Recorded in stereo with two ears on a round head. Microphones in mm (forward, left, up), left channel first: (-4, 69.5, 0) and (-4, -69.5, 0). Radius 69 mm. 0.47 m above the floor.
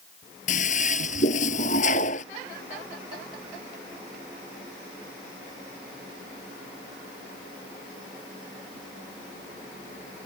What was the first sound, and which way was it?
A toilet flushing, 50° left (ahead or behind).